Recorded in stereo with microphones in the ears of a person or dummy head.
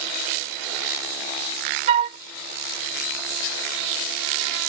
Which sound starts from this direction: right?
A flute, at 1.9 s.